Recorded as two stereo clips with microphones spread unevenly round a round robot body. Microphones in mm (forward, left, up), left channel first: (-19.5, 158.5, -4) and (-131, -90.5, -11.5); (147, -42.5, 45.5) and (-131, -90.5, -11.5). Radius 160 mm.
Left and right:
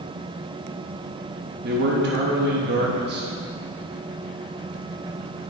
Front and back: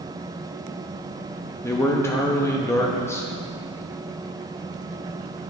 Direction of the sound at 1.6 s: 80° right.